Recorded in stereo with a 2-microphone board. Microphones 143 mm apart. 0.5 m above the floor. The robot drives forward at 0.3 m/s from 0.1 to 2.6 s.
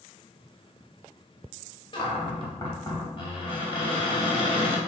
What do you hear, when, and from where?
1.9 s a cupboard door: 35° left (ahead or behind), 0.7 m